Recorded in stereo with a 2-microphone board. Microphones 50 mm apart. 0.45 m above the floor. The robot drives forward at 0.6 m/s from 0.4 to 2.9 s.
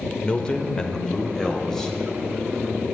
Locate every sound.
0.2 s a man speaking: 20° left (ahead or behind), 1.0 m; by 2.0 s 10° left (ahead or behind), 1.8 m